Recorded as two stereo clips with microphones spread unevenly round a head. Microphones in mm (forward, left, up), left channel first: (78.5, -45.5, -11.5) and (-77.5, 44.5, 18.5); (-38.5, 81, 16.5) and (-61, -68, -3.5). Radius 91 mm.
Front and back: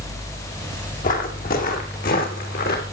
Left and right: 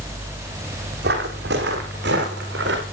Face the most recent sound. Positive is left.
turn(degrees=-70)